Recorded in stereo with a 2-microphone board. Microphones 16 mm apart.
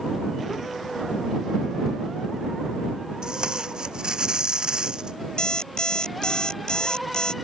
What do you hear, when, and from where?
3.2 s tape being pulled: 65° right (ahead or behind)
5.4 s an alarm clock: 65° left (ahead or behind)